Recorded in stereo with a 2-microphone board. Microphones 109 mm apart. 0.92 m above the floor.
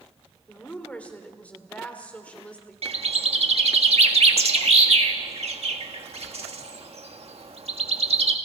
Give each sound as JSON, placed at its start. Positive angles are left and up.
{"t": 0.5, "sound": "a woman speaking", "side_deg": 15, "distance_m": 3.0}
{"t": 2.8, "sound": "a bird", "side_deg": -65, "distance_m": 1.7}